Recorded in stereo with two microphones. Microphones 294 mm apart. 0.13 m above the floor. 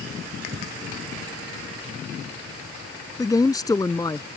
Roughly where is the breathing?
Right.